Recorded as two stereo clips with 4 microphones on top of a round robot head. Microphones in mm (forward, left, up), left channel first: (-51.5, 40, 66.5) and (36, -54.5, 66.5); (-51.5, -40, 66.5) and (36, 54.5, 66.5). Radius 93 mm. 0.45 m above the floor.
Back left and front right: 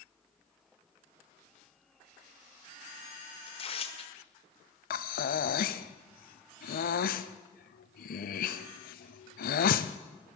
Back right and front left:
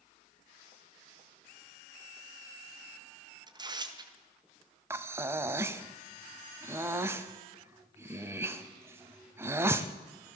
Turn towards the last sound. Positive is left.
turn(degrees=120)